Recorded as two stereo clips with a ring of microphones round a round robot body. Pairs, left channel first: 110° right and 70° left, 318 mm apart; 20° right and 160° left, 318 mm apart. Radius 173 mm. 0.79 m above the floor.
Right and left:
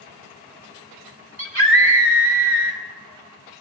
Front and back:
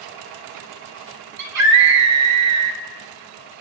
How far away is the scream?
About 2.5 m.